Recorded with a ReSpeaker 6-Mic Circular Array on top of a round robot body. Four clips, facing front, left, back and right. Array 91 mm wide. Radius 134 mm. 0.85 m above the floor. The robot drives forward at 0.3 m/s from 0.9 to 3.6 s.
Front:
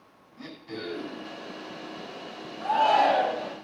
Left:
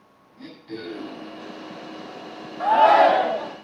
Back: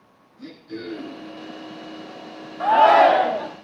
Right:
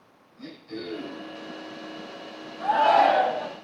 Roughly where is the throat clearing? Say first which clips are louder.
Left 1 dB, back 3 dB; ahead left.